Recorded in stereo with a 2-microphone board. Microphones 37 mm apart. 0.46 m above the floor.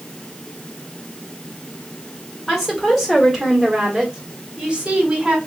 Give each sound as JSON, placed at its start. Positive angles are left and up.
{"t": 2.5, "sound": "a woman speaking", "side_deg": 10, "distance_m": 2.0}